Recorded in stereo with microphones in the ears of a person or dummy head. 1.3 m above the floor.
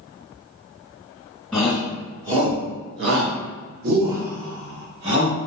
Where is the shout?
5° left (ahead or behind), 1.3 m; by 5.4 s 70° right (ahead or behind), 2.5 m.